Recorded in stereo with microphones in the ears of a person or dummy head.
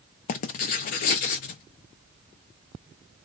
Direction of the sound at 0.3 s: 40° left (ahead or behind).